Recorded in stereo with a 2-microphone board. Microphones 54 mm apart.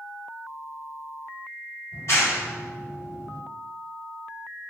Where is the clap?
50° left (ahead or behind), 1.9 m.